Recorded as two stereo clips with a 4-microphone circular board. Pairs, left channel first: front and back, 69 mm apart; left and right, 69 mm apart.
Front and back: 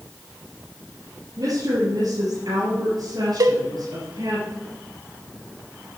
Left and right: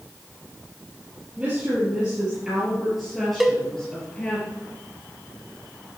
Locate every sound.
1.4 s a woman speaking: 165° right, 5 m; by 4.4 s 160° left, 4 m
3.4 s a cowbell: 175° right, 0.6 m